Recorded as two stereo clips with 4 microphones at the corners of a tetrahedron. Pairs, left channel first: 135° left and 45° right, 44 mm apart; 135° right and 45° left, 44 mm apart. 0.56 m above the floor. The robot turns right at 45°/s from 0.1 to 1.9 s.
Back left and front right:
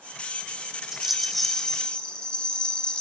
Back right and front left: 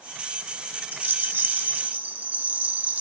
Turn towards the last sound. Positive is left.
turn(degrees=75)